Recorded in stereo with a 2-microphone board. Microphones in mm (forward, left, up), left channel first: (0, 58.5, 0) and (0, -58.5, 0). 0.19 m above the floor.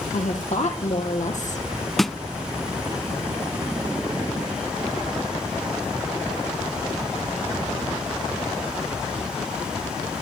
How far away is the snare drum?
About 0.5 m.